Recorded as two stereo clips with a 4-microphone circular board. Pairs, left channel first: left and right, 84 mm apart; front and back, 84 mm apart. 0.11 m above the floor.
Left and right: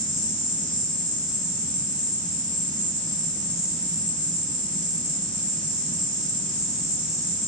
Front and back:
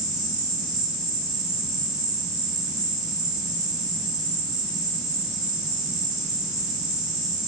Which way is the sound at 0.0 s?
15° right.